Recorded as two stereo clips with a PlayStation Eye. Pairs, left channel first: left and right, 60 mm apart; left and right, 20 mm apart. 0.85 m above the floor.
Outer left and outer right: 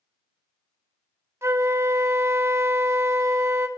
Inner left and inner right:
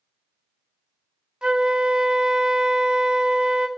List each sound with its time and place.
1.4 s a flute: 50° right (ahead or behind), 0.6 m